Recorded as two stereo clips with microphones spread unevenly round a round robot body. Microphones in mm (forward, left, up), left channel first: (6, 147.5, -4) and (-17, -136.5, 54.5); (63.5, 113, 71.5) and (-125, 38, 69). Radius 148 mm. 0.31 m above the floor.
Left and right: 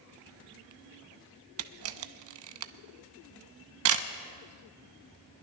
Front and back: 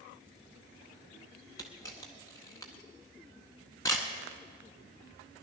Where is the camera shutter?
55° right, 0.5 m.